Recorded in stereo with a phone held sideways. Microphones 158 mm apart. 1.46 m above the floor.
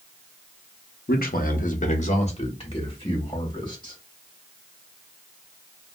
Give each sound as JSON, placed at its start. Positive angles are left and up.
{"t": 1.1, "sound": "a man speaking", "side_deg": 75, "distance_m": 0.6}